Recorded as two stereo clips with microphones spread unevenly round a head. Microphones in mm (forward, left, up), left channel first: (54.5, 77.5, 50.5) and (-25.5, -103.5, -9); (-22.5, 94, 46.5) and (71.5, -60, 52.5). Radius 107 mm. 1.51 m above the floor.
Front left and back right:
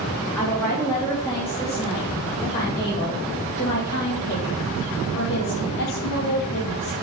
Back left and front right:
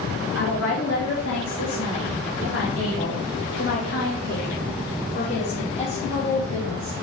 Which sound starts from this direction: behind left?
A woman speaking, at 0.3 s.